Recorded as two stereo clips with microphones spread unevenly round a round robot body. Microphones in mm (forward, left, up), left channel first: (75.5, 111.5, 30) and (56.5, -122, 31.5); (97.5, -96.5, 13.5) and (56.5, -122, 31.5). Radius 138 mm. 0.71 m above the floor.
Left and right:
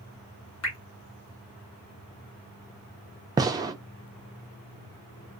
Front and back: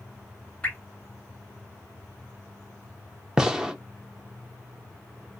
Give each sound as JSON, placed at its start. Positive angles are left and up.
{"t": 0.6, "sound": "dripping", "azimuth_deg": 100, "distance_m": 1.6}
{"t": 3.4, "sound": "a gunshot", "azimuth_deg": -40, "distance_m": 0.5}